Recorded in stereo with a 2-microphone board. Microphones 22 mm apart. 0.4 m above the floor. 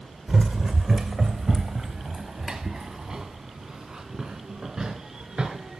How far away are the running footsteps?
About 1.3 m.